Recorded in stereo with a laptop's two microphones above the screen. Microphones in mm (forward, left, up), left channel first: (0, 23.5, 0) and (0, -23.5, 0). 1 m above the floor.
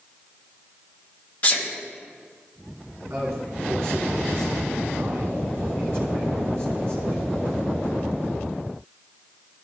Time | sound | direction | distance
1.4 | a sneeze | 25° left (ahead or behind) | 1.2 m
3.1 | a man speaking | 65° right (ahead or behind) | 2.5 m